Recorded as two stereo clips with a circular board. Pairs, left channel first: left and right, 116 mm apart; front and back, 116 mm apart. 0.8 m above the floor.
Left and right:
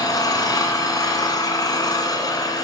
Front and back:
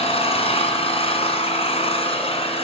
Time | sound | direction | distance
0.0 | an engine running | 35° left | 3 m